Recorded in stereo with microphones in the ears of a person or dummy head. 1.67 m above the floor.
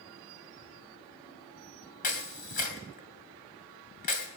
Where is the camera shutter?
45° left (ahead or behind), 2.5 m.